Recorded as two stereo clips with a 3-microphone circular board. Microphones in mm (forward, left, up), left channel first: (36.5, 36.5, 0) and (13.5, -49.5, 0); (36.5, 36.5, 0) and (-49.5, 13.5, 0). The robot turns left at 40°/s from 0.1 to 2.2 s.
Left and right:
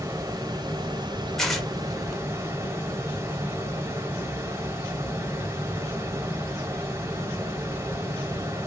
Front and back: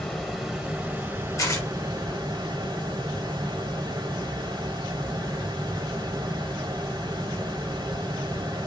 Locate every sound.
0.0 s running water: 60° right, 1.2 m; by 8.7 s 145° right, 1.2 m
1.4 s tearing paper: 10° right, 0.8 m; by 1.7 s 20° right, 0.8 m